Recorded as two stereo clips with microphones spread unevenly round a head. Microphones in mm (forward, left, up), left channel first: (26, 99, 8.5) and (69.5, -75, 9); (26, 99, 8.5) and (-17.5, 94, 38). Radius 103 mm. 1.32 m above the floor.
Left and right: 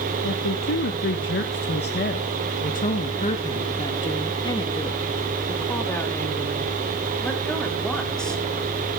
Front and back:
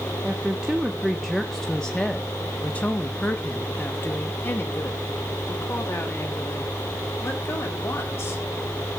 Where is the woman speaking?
110° left, 1.7 m; by 8.4 s 15° left, 4.5 m.